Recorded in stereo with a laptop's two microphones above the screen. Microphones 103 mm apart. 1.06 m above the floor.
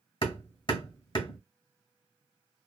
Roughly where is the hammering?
Left.